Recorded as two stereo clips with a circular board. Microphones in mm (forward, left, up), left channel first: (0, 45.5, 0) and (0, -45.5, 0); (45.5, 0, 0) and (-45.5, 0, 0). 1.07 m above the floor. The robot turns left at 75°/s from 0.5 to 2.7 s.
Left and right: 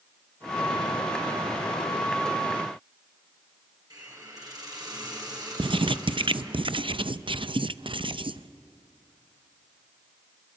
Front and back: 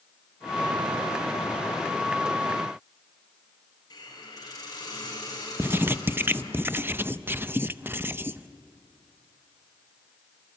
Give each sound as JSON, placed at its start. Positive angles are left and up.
{"t": 3.9, "sound": "a hiss", "azimuth_deg": -45, "distance_m": 7.0}
{"t": 5.6, "sound": "writing", "azimuth_deg": -115, "distance_m": 0.5}